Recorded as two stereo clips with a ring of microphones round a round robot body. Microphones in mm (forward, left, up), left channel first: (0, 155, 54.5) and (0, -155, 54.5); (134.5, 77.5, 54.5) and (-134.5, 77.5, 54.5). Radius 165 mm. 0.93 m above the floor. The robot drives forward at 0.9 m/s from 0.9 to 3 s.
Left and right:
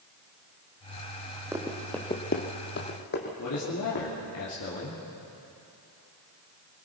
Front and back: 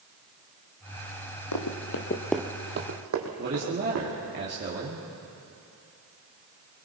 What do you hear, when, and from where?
1.5 s running footsteps: 10° right, 2 m; by 4.4 s 150° left, 4 m
3.4 s a man speaking: 130° left, 2.5 m